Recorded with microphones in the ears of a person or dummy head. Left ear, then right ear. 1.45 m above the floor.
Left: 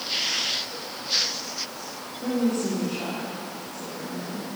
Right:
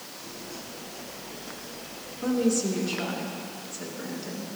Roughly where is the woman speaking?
Right.